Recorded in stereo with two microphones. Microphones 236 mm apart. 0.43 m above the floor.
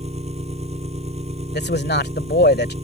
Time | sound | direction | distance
0.0 | an engine running | 25° right (ahead or behind) | ?
1.5 | a man speaking | 45° left (ahead or behind) | ?